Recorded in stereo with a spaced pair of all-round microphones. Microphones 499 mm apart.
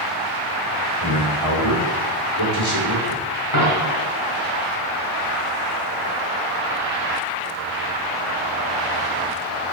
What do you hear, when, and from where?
1.0 s a man speaking: 65° left (ahead or behind), 4.5 m
3.5 s a dropped coin: 80° left, 4 m